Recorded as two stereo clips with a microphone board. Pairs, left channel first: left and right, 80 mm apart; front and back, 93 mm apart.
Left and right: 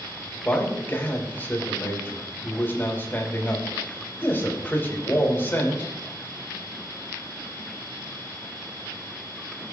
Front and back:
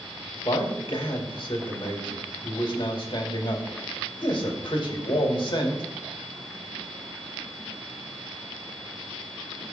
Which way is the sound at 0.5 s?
25° left.